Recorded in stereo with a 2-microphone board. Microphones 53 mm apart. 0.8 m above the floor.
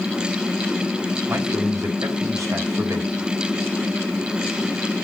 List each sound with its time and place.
1.3 s a man speaking: 80° right, 3.5 m